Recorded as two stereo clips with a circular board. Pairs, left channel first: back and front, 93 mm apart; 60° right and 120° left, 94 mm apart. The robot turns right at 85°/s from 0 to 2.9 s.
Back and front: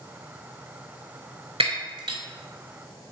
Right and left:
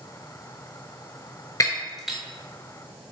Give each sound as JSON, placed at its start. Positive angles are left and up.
{"t": 1.6, "sound": "breaking glass", "azimuth_deg": -5, "distance_m": 0.5}